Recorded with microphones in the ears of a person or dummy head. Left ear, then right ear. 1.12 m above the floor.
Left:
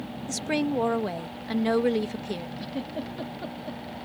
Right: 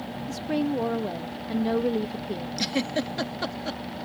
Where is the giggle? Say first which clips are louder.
Right 7 dB; 60° right (ahead or behind).